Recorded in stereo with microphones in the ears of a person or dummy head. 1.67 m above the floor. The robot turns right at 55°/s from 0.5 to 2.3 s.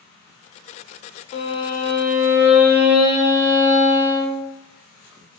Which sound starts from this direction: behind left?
A violin, at 1.3 s.